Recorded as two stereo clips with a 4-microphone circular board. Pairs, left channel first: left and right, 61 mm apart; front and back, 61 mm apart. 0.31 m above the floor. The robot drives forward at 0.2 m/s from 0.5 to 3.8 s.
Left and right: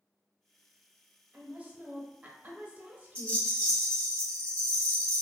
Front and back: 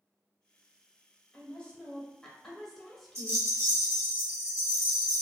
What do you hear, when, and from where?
1.3 s a woman speaking: 55° right, 1.0 m; by 3.5 s 95° right, 1.0 m
3.1 s a rattle: 150° left, 1.6 m; by 5.2 s 155° left, 1.7 m